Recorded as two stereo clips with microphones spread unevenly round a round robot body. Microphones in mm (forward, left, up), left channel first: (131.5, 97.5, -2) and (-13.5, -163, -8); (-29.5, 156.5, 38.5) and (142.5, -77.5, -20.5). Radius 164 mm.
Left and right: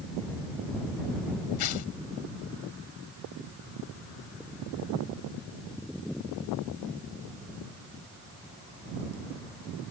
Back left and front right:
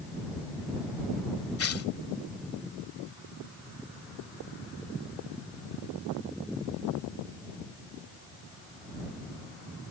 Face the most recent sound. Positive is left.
turn(degrees=85)